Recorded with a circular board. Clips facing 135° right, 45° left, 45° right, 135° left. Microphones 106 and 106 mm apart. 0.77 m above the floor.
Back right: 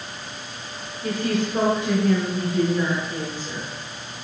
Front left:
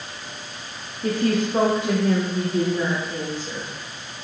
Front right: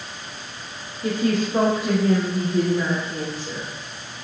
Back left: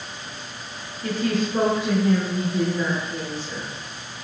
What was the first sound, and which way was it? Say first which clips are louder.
A woman speaking: front left 3 dB, front right 2 dB; 30° left.